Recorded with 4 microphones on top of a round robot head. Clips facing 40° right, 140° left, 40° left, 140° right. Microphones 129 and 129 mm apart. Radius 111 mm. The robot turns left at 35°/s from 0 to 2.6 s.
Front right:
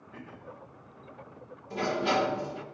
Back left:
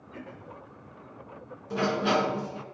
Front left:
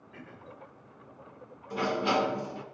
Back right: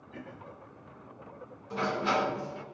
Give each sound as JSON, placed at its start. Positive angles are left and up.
{"t": 0.1, "sound": "throat clearing", "azimuth_deg": -145, "distance_m": 3.0}
{"t": 1.7, "sound": "a sliding door", "azimuth_deg": 125, "distance_m": 2.5}